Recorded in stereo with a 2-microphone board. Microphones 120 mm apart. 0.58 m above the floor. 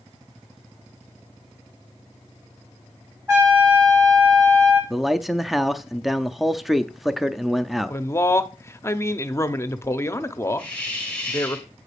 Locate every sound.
3.3 s a trumpet: 20° right (ahead or behind), 7 m
4.9 s a man speaking: centre (ahead or behind), 0.6 m
7.9 s a man speaking: 20° left (ahead or behind), 0.7 m
10.6 s a hiss: 10° left (ahead or behind), 2.5 m